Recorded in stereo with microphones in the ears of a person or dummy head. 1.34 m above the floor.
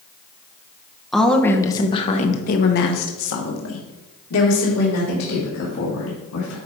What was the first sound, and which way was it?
A woman speaking, centre (ahead or behind).